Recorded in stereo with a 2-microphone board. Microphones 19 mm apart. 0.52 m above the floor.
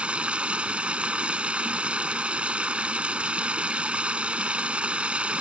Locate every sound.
0.0 s running water: 80° right